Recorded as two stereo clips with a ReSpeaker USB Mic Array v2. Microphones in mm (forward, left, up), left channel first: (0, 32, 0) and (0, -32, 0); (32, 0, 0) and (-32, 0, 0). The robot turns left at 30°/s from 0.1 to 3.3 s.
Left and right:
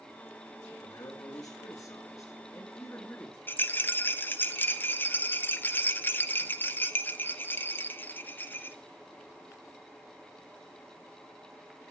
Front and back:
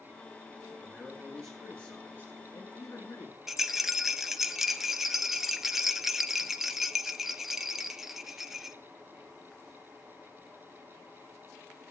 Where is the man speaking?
105° left, 3.5 m; by 3.4 s 30° left, 3.5 m.